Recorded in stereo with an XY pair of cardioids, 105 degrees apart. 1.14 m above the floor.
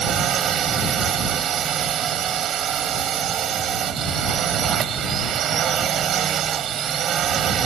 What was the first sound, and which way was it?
A drone, 55° right.